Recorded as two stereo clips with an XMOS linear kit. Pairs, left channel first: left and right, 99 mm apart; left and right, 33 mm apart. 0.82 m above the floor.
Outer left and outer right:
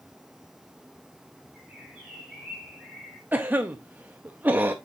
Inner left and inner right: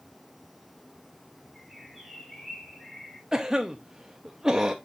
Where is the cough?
20° right (ahead or behind), 0.6 m.